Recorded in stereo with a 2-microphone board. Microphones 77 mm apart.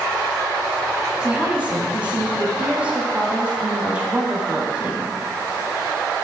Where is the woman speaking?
15° right (ahead or behind), 1.3 m.